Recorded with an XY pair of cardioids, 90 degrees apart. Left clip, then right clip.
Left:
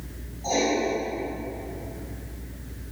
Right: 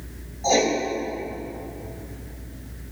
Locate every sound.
0.4 s writing: 70° right, 3 m